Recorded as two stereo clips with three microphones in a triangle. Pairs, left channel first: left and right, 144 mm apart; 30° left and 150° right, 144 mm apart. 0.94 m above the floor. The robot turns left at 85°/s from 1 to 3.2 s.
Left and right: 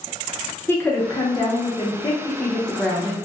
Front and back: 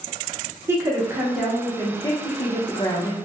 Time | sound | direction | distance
0.7 | a woman speaking | 155° left | 0.6 m